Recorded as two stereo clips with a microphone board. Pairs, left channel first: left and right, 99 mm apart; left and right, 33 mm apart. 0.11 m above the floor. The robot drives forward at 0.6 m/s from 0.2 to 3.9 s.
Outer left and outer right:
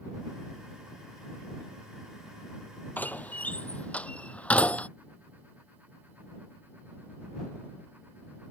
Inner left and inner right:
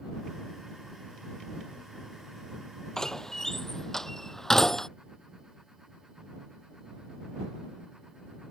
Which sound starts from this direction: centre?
A door slam, at 3.0 s.